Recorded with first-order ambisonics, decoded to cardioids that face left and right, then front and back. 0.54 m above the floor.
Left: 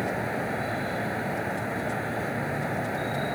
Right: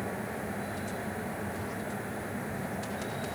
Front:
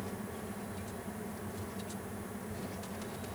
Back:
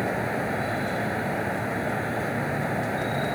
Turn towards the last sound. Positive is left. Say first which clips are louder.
# left 7 dB, back 16 dB
turn(degrees=150)